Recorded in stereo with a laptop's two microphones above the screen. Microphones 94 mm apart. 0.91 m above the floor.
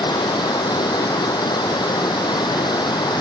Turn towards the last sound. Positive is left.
turn(degrees=50)  # may be behind; listen again after turning